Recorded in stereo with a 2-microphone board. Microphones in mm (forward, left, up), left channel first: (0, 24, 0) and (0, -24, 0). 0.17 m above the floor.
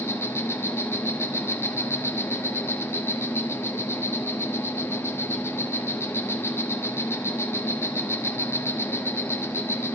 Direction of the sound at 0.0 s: 65° left (ahead or behind).